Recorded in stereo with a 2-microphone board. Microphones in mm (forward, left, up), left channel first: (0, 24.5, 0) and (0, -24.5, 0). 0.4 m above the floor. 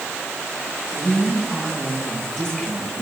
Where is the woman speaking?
10° left (ahead or behind), 5.5 m; by 3.0 s 15° left (ahead or behind), 4.5 m.